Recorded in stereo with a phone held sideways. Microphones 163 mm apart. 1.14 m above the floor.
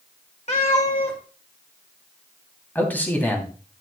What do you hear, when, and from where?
0.5 s a cat meowing: 45° left (ahead or behind), 2.0 m
2.8 s a man speaking: 10° left (ahead or behind), 3 m